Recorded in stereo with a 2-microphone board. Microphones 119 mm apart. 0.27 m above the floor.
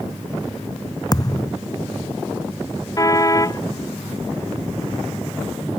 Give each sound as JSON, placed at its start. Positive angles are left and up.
{"t": 1.1, "sound": "a thud", "side_deg": 30}
{"t": 3.0, "sound": "a car horn", "side_deg": 30}